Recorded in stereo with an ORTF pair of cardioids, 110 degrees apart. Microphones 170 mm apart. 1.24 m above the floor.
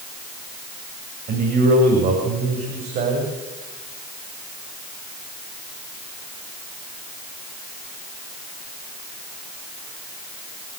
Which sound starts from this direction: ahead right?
A man speaking, at 1.3 s.